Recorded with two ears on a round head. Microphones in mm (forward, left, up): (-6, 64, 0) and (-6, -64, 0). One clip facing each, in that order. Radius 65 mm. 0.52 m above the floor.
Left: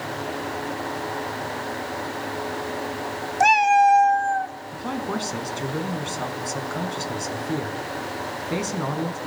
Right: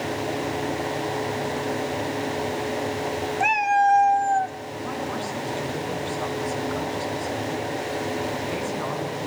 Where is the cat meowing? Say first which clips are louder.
Left 5 dB; 45° left (ahead or behind), 0.7 m; by 4.5 s 40° right (ahead or behind), 0.7 m.